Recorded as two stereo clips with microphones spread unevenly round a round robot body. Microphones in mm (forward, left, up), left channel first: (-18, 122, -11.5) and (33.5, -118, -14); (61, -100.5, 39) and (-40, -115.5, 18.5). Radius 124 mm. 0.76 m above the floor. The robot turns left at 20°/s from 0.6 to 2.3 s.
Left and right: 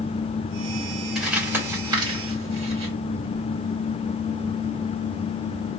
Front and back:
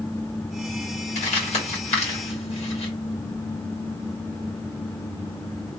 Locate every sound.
1.1 s crumpling: 10° left, 1.9 m; by 2.9 s 10° right, 1.9 m